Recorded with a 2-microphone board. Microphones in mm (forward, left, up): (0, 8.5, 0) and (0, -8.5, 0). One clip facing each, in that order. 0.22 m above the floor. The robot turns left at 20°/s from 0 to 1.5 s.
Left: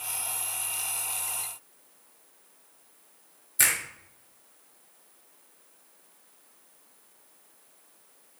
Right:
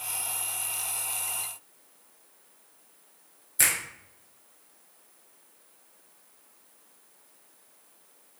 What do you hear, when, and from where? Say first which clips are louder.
3.6 s a finger snap: left 1 dB; centre (ahead or behind), 1.2 m